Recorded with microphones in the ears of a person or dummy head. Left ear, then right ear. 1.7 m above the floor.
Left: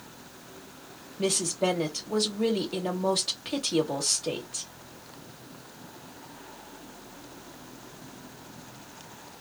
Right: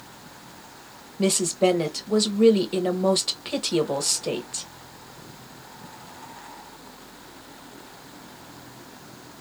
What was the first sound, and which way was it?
A woman speaking, 20° right (ahead or behind).